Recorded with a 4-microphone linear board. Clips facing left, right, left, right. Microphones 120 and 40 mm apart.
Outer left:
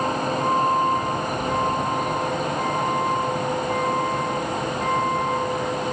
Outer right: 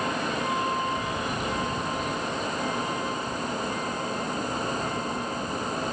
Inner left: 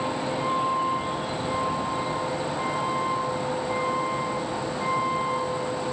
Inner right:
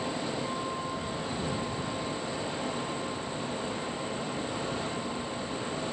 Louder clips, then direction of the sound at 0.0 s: Outer left 6 dB, inner left 6 dB; 40° left (ahead or behind).